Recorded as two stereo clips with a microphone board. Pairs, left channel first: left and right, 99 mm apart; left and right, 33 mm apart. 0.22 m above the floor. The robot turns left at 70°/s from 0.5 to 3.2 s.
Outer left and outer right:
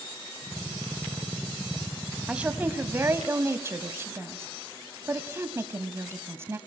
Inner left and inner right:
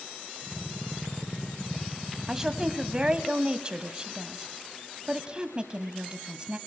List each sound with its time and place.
2.3 s a woman speaking: 10° right (ahead or behind), 1.3 m; by 6.6 s 25° right (ahead or behind), 1.3 m